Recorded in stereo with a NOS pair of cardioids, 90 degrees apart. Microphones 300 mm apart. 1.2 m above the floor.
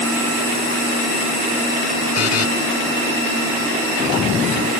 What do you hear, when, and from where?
2.1 s a buzzer: 55° left